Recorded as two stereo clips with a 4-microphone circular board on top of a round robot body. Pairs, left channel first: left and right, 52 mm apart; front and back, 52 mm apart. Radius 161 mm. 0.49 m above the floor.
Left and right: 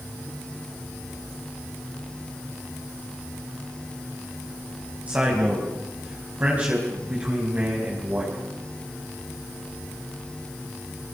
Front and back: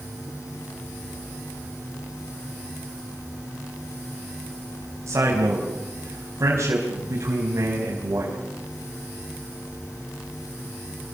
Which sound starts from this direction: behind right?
A man speaking, at 5.1 s.